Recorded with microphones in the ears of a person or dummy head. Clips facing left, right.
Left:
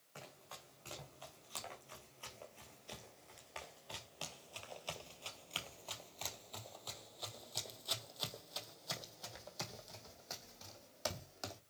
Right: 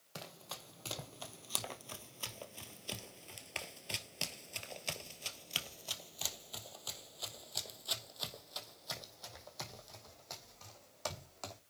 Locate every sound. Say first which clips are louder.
0.1 s running footsteps: right 5 dB; 55° right (ahead or behind), 2.5 m; by 11.6 s 10° left (ahead or behind), 4.5 m